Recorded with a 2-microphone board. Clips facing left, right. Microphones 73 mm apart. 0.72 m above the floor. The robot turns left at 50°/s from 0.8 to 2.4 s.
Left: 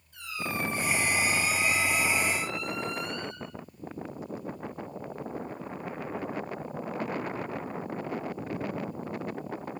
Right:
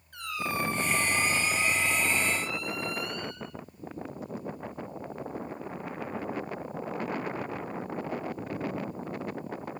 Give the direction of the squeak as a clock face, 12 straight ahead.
4 o'clock.